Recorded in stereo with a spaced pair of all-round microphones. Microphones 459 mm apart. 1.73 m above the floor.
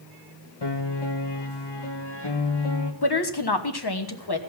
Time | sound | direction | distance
0.6 | a piano | 60° left (ahead or behind) | 1.7 m
3.0 | a woman speaking | 55° left (ahead or behind) | 1.3 m